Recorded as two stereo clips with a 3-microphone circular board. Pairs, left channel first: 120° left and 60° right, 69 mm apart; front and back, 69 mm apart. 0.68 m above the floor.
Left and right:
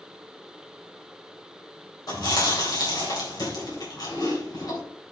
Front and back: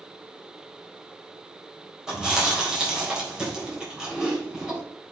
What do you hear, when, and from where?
2.1 s chewing: 100° left, 3.5 m